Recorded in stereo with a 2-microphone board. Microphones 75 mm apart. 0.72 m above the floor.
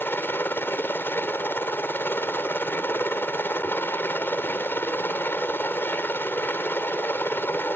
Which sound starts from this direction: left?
A helicopter, at 0.0 s.